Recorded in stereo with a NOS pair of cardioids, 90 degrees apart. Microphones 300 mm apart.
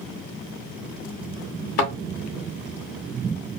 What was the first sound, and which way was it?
A thud, 55° left.